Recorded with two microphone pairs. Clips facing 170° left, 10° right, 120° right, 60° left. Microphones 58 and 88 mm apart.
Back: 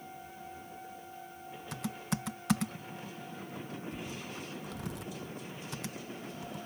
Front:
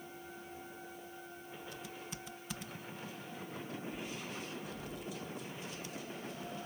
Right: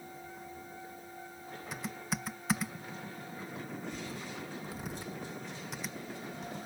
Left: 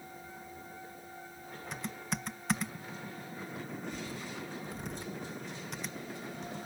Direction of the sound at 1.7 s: 150° left.